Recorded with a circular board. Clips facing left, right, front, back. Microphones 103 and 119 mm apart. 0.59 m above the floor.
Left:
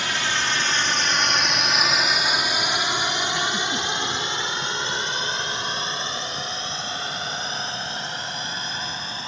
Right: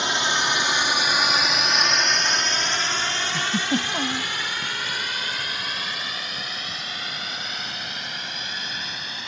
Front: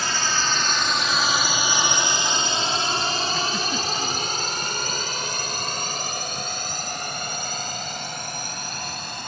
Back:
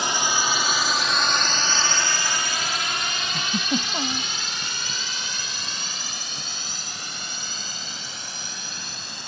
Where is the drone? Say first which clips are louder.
Right 2 dB, back 1 dB; 130° right; by 9.3 s 35° left.